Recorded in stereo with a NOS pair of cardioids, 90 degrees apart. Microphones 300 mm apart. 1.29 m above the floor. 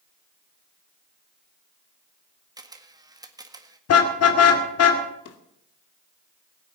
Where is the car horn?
55° left, 2.5 m.